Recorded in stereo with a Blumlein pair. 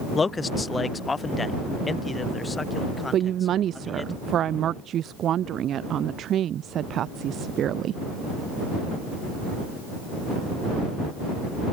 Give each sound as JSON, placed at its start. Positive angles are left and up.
{"t": 0.1, "sound": "a man speaking", "azimuth_deg": 15}
{"t": 3.1, "sound": "a woman speaking", "azimuth_deg": -30}